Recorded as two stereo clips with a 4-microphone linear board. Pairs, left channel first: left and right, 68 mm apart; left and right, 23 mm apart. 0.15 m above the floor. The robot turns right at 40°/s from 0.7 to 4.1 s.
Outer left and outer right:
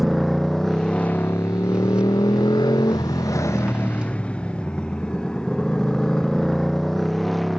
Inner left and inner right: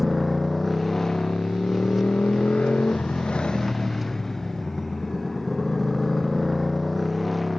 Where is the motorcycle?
Centre (ahead or behind).